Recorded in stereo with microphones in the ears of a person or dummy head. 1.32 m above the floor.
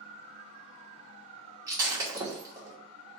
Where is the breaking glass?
20° right (ahead or behind), 1.1 m.